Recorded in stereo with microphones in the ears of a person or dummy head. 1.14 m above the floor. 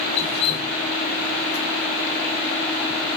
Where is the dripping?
40° left (ahead or behind), 2.5 m.